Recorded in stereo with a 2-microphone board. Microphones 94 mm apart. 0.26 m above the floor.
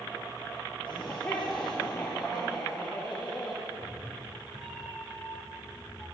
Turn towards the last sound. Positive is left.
turn(degrees=0)  # may be behind; listen again after turning